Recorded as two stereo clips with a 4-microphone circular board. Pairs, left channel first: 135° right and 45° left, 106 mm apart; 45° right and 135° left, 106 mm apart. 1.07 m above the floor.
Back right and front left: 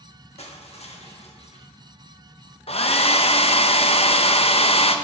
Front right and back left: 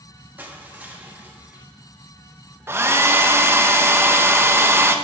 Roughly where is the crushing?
Behind right.